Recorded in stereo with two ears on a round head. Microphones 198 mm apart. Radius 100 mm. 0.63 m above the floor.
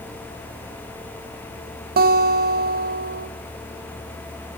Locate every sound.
2.0 s a guitar: 45° right (ahead or behind), 1.2 m